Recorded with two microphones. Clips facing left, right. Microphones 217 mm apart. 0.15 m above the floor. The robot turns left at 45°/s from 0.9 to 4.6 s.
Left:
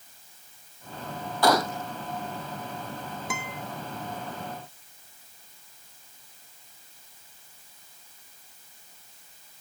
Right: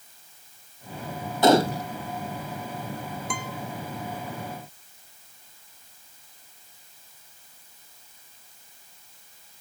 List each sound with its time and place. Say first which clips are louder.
1.4 s a gunshot: right 5 dB; 25° right (ahead or behind); by 1.9 s 40° right (ahead or behind)
3.3 s a guitar: right 2 dB; 5° left (ahead or behind); by 3.6 s 20° left (ahead or behind)